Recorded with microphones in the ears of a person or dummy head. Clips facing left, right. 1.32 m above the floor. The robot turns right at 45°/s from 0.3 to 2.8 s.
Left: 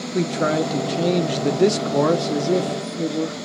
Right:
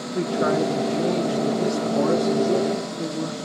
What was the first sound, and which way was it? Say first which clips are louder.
A man speaking: left 1 dB; 30° left.